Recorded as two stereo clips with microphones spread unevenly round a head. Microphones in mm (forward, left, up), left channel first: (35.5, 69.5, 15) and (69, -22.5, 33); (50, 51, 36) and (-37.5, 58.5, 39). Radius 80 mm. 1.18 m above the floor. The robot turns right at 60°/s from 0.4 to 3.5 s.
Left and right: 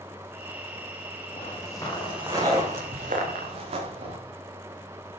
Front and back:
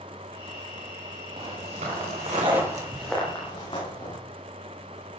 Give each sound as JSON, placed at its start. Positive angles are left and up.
{"t": 1.4, "sound": "footsteps", "azimuth_deg": 155, "distance_m": 7.0}